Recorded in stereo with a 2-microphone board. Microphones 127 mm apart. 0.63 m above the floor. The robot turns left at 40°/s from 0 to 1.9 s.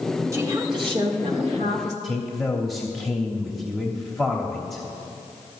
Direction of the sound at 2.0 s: Centre (ahead or behind).